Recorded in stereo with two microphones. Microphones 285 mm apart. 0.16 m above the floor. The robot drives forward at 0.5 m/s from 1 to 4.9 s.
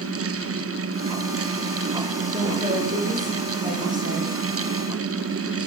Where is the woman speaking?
25° right (ahead or behind), 8 m; by 4.3 s 30° right (ahead or behind), 7 m.